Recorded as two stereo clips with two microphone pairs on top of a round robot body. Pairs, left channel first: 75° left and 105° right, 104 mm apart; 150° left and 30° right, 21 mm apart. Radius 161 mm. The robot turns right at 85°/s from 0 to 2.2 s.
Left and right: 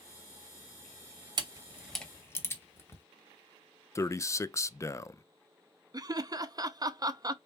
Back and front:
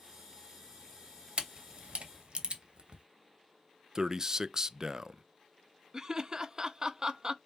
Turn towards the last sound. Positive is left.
turn(degrees=-80)